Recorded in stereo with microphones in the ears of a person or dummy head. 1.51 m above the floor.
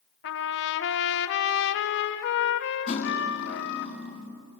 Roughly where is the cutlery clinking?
Left.